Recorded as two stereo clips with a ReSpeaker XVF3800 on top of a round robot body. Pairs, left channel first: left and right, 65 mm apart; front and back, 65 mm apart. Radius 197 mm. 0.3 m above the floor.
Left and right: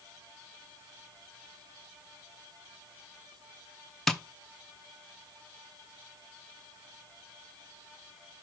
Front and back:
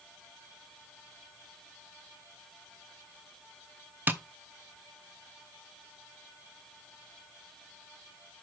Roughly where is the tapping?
Behind.